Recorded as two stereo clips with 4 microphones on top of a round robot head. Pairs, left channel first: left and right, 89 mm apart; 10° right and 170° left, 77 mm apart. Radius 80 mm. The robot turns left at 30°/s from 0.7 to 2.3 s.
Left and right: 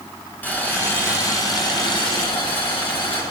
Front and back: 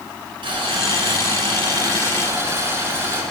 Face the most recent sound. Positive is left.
turn(degrees=115)